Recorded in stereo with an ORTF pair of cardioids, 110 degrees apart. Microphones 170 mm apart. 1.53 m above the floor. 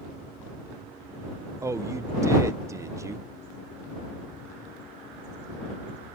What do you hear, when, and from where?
1.6 s a man speaking: 15° right